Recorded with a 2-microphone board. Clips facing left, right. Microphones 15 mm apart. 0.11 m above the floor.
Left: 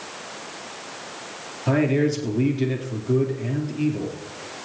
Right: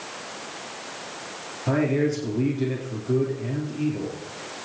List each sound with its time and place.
1.7 s a man speaking: 20° left (ahead or behind), 2.5 m